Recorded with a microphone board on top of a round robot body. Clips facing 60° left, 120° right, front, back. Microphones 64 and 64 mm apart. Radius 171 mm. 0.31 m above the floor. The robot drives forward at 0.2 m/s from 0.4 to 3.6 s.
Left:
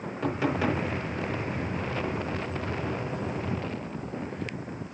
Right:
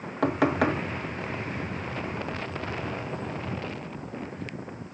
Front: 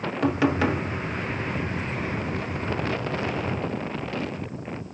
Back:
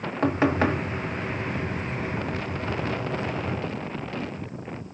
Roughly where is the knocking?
Behind right.